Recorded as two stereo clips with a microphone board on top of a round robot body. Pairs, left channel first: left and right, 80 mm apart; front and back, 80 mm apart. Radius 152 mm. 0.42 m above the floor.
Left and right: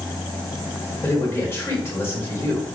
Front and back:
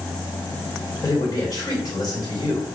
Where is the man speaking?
30° left, 2.5 m.